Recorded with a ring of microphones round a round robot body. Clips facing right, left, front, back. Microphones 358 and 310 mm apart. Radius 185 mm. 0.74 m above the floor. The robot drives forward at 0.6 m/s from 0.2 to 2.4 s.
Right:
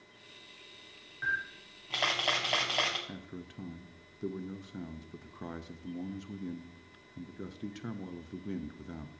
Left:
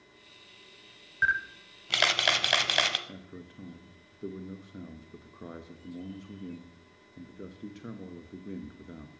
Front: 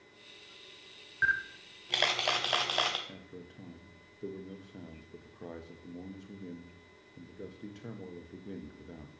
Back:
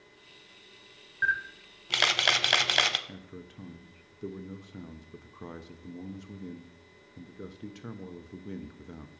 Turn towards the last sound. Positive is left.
turn(degrees=-135)